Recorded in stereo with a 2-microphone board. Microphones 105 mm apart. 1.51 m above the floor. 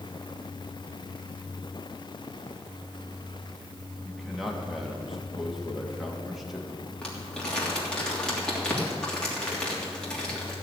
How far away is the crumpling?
About 3 m.